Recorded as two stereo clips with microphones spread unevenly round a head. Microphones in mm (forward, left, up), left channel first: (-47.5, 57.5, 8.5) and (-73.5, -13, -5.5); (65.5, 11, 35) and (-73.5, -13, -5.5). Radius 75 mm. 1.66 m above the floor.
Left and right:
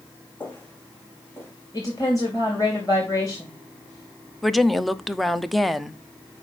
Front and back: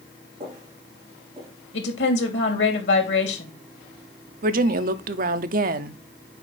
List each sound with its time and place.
0.4 s footsteps: 130° left, 4.5 m; by 1.5 s 115° left, 4 m
1.7 s a woman speaking: straight ahead, 2.5 m
4.4 s a woman speaking: 160° left, 0.7 m